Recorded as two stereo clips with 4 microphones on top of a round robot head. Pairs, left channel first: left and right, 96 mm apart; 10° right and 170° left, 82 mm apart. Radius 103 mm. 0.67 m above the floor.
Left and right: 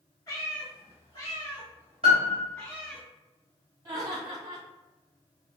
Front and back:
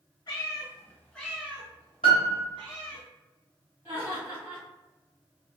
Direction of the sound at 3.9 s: 130° right.